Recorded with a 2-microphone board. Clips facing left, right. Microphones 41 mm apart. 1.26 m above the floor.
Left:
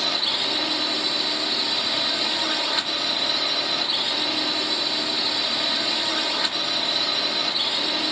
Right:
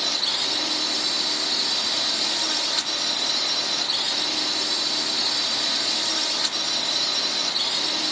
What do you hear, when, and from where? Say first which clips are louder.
0.0 s a drone: left 2 dB; 20° left (ahead or behind)